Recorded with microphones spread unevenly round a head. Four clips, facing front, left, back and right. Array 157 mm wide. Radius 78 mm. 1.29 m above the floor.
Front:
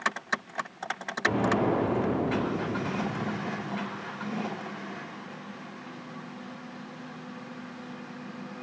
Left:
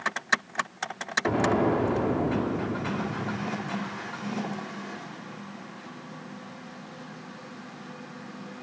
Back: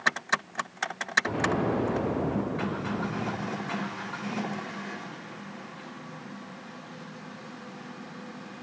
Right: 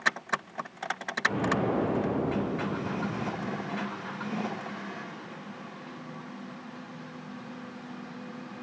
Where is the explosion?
75° left, 4.5 m.